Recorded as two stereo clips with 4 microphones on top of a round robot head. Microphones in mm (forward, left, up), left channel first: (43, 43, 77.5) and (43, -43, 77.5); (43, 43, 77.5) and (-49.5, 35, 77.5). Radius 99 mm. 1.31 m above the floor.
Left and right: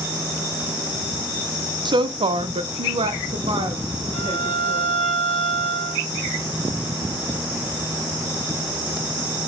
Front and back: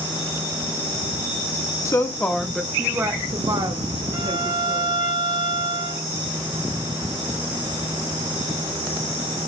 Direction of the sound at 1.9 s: 55° right.